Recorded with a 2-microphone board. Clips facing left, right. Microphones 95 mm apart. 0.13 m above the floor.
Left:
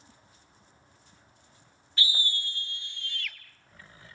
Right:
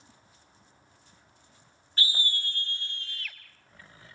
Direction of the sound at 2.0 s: 40° right (ahead or behind).